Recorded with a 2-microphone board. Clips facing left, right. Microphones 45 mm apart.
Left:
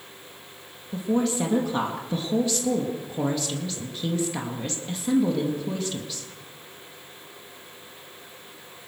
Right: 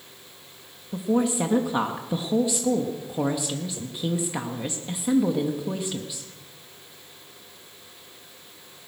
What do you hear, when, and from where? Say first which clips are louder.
0.9 s a woman speaking: right 1 dB; 15° right (ahead or behind), 1.8 m